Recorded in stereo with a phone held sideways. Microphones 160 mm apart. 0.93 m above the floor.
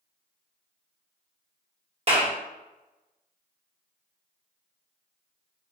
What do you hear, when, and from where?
2.1 s a clap: 40° right (ahead or behind), 1.2 m